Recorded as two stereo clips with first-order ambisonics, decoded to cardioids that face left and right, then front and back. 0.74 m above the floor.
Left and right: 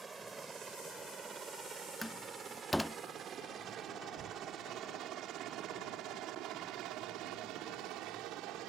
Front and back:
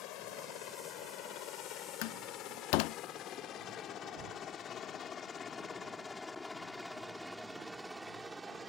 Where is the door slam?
Straight ahead.